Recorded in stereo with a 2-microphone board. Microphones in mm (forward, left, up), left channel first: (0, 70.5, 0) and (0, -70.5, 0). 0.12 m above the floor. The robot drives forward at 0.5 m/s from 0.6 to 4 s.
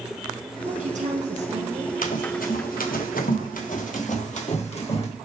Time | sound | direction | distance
0.7 | a woman speaking | 60° right (ahead or behind) | 2 m
2.0 | running footsteps | 75° left (ahead or behind) | 2 m